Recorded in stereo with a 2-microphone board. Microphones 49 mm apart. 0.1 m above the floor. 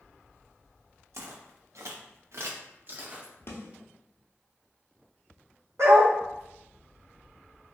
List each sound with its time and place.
1.1 s footsteps: 70° right (ahead or behind), 1.0 m; by 3.3 s 30° right (ahead or behind), 1.1 m
3.5 s a snare drum: 60° left (ahead or behind), 0.7 m
5.8 s a dog barking: 65° right (ahead or behind), 1.4 m